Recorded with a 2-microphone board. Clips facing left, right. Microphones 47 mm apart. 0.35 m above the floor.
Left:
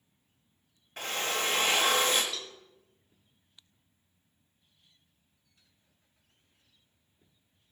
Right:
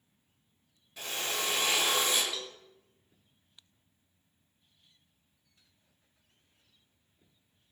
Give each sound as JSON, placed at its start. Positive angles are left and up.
{"t": 1.0, "sound": "a drill", "side_deg": 50, "distance_m": 1.1}
{"t": 2.3, "sound": "a cowbell", "side_deg": -5, "distance_m": 0.7}